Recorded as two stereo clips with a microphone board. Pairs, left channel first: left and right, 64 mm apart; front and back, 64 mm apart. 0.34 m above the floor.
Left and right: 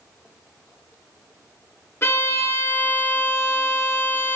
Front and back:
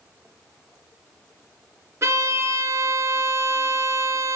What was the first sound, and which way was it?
A violin, 140° left.